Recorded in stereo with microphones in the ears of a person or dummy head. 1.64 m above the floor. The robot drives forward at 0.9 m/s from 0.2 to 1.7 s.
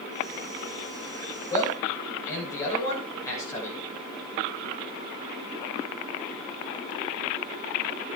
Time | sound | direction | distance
1.5 | a man speaking | 25° left (ahead or behind) | 7.5 m